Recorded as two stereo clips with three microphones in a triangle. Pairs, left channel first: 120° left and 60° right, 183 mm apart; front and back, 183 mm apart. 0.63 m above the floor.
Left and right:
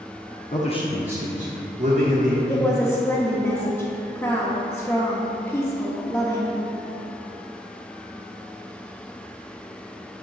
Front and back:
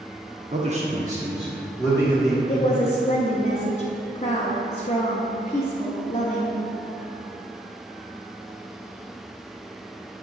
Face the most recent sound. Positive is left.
turn(degrees=45)